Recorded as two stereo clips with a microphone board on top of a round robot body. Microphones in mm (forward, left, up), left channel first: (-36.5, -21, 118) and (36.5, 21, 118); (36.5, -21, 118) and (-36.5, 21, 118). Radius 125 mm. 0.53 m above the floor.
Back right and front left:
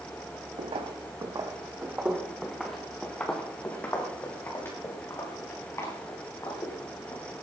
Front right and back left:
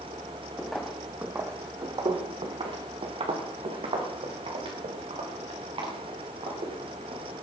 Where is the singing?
No singing in this recording.